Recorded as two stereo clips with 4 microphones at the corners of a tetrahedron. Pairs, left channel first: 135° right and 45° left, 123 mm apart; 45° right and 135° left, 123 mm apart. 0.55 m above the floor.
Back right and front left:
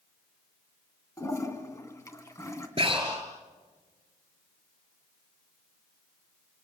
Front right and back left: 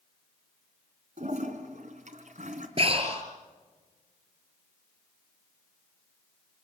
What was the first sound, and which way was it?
A toilet flushing, 155° left.